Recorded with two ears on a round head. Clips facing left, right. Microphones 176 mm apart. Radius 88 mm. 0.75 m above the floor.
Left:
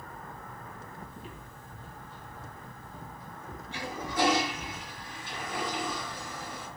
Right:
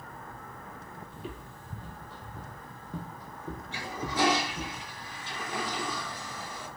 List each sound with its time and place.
1.1 s footsteps: 55° right (ahead or behind), 1.4 m; by 4.7 s 50° right (ahead or behind), 2.5 m
3.7 s a toilet flushing: 60° right (ahead or behind), 5.5 m